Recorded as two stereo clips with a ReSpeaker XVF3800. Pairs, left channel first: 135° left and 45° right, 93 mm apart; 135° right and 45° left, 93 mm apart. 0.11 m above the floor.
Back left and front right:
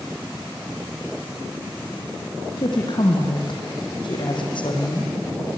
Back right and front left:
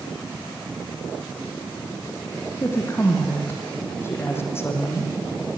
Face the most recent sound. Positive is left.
turn(degrees=160)